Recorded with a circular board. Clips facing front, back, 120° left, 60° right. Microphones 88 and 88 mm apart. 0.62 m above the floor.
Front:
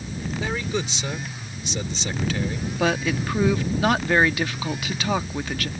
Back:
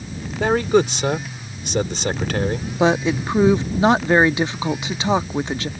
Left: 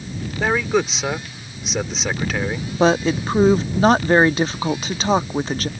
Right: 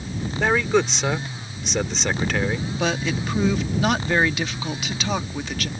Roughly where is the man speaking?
Behind right.